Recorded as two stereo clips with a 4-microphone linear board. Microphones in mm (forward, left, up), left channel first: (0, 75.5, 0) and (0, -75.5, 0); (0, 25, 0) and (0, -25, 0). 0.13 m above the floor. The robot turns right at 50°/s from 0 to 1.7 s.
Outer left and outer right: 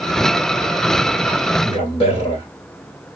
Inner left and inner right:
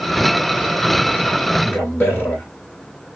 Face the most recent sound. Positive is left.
turn(degrees=35)  # may be behind; listen again after turning